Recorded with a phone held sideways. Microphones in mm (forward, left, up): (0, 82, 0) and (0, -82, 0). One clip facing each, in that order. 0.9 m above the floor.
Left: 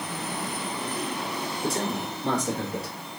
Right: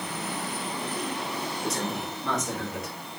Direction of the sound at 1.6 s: 30° left (ahead or behind).